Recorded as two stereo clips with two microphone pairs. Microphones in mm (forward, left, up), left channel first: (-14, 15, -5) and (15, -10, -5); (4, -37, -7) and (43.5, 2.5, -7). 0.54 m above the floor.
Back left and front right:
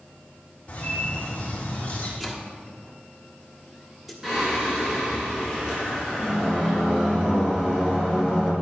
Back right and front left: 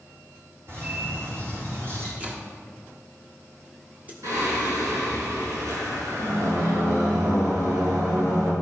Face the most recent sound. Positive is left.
turn(degrees=30)